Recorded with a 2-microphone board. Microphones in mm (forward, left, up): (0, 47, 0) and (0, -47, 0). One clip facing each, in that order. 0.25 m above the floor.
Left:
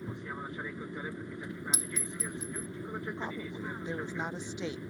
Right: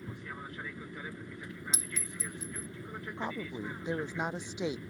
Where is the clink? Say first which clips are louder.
Left 3 dB; 30° right (ahead or behind).